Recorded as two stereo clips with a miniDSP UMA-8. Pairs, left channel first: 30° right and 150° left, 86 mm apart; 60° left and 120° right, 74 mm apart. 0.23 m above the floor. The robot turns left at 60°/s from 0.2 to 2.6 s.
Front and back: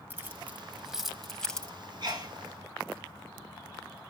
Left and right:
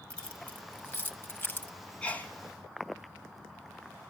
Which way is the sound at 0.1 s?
120° left.